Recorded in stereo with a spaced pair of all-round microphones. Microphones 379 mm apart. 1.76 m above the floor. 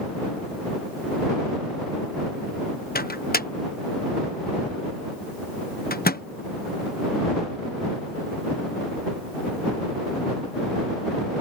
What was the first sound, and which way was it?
A microwave, 25° left (ahead or behind).